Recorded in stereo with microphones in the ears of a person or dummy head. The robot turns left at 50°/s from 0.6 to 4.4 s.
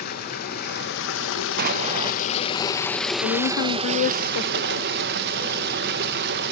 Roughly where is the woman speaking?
Behind left.